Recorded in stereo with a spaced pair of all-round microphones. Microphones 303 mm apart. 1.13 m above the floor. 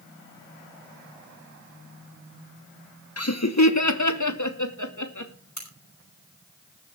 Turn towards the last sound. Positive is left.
turn(degrees=65)  # may be behind; listen again after turning